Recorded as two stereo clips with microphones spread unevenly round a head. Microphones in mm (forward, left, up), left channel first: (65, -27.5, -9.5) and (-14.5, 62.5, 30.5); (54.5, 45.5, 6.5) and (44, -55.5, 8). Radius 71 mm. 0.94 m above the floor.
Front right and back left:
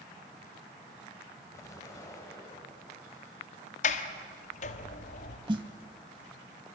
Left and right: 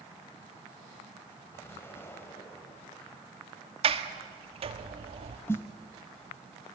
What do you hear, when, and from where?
1.5 s an explosion: 15° left, 4 m
3.8 s a sliding door: 70° right, 1.5 m
5.5 s a snare drum: 150° left, 1.1 m